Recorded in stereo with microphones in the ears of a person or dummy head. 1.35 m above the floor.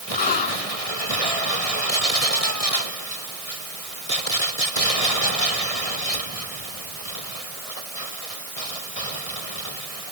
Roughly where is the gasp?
Left.